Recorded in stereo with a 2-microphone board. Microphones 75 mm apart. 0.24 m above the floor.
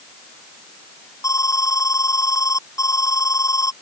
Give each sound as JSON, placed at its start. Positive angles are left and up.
{"t": 1.2, "sound": "an alarm", "side_deg": 45}